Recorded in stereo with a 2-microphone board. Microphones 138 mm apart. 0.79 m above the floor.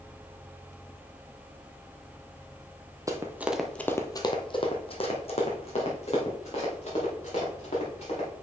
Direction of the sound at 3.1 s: 25° right (ahead or behind).